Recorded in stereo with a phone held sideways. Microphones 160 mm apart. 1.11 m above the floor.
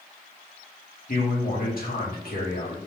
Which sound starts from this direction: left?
A man speaking, at 1.1 s.